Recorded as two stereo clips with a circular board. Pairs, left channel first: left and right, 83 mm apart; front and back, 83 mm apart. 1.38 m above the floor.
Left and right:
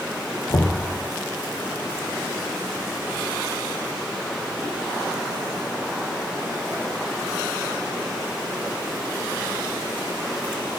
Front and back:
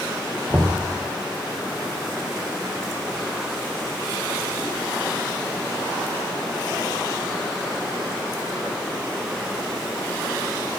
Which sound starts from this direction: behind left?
Knocking, at 0.5 s.